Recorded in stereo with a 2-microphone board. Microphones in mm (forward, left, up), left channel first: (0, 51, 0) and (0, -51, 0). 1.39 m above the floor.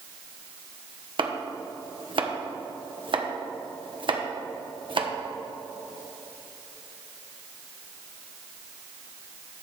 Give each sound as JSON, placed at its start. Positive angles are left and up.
{"t": 1.2, "sound": "chopping", "side_deg": -55, "distance_m": 1.1}